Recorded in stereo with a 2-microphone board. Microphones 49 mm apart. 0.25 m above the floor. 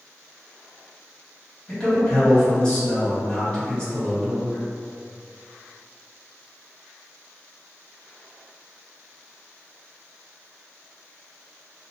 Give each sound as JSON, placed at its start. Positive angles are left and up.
{"t": 1.7, "sound": "a man speaking", "side_deg": 25, "distance_m": 1.5}